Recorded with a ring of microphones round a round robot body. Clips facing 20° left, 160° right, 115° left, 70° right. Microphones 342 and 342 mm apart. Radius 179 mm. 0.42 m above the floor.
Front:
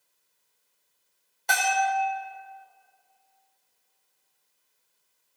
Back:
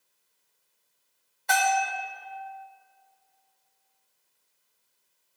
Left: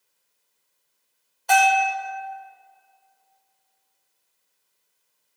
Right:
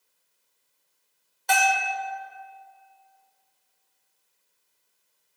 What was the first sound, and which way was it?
A bell, 15° right.